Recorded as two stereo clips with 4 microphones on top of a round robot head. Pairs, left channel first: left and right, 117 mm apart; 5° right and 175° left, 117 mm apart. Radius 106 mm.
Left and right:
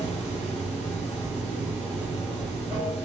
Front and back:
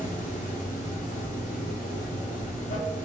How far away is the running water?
About 1.0 m.